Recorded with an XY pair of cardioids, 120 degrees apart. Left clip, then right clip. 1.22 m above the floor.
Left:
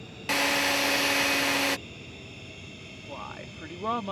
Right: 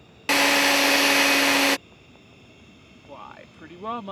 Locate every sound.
0.3 s a drill: 35° right
3.1 s a woman speaking: 5° left